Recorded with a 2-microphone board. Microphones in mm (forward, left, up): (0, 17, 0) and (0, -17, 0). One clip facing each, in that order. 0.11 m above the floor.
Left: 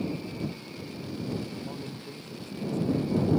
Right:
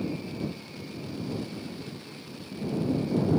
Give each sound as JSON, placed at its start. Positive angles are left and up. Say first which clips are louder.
{"t": 1.6, "sound": "a man speaking", "louder": "left 1 dB", "side_deg": 55}